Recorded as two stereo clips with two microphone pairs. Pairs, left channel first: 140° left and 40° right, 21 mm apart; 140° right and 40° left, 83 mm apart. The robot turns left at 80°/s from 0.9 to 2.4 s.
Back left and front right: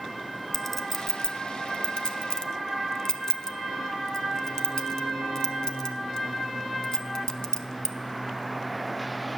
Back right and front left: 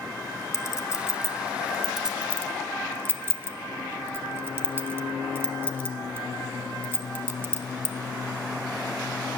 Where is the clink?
150° right, 0.8 m; by 8.0 s 90° left, 0.8 m.